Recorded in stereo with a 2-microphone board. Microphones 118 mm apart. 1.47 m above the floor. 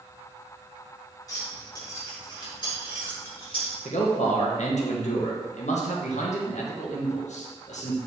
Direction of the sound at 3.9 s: 80° left.